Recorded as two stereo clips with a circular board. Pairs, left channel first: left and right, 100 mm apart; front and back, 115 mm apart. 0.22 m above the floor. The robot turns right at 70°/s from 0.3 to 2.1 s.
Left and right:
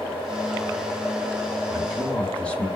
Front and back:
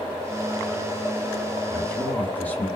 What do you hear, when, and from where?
1.7 s a man speaking: 10° left, 1.1 m; by 2.7 s 40° left, 1.1 m